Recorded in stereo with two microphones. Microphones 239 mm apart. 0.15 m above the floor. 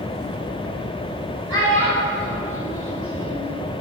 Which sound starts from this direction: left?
A child speaking, at 1.5 s.